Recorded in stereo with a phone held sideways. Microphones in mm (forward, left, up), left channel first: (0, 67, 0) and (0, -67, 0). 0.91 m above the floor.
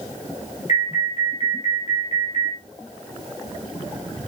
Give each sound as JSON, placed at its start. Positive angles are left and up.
{"t": 0.7, "sound": "an alarm", "side_deg": 55, "distance_m": 5.0}